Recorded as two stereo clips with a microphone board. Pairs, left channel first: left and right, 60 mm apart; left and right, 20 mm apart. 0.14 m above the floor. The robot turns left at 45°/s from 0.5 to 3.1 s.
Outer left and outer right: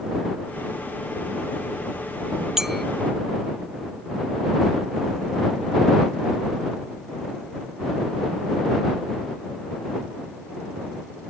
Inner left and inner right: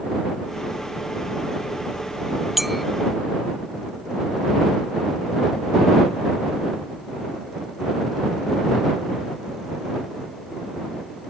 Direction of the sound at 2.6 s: 10° right (ahead or behind).